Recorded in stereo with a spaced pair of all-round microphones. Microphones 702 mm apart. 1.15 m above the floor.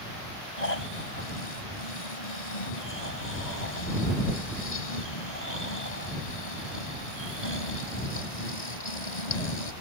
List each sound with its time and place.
0.6 s snoring: 85° left